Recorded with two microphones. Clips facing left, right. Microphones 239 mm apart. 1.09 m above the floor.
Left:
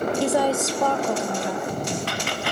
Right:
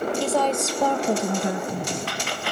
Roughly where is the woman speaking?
Centre.